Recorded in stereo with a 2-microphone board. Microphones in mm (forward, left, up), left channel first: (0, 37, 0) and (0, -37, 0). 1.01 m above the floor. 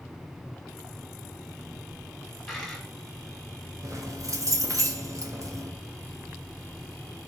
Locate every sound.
2.5 s a dropped coin: 5° left (ahead or behind), 1.5 m
3.8 s keys jangling: 50° right (ahead or behind), 0.7 m